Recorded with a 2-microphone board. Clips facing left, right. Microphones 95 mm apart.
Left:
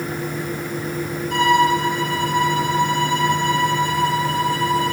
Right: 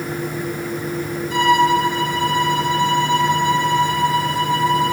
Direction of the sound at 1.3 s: 50° left (ahead or behind).